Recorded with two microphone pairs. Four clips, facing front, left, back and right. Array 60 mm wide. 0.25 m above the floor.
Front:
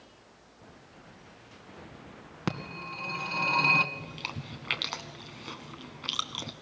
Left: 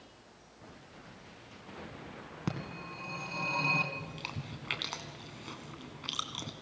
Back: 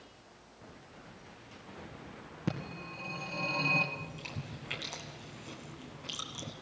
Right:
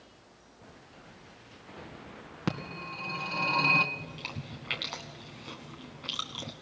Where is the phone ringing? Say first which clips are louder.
Right 4 dB, front 3 dB; 20° right, 2.0 m.